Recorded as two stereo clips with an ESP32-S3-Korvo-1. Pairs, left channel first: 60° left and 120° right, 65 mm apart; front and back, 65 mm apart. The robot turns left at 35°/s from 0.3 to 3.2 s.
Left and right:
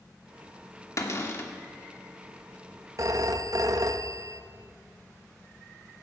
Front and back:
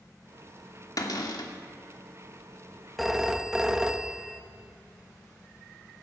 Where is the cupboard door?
20° left, 1.5 m; by 1.5 s straight ahead, 1.5 m.